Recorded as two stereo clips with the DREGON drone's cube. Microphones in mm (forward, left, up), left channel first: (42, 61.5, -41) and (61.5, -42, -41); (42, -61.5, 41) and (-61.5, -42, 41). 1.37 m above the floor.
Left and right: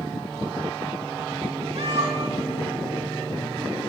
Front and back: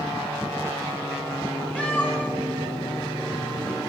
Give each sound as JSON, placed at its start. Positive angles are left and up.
{"t": 1.8, "sound": "a cat meowing", "azimuth_deg": -90, "distance_m": 4.0}